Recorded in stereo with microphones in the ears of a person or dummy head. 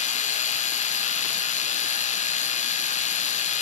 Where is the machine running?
35° left (ahead or behind), 1.0 m.